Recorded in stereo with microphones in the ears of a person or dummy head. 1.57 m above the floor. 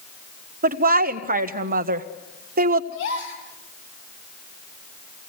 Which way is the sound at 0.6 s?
50° right (ahead or behind).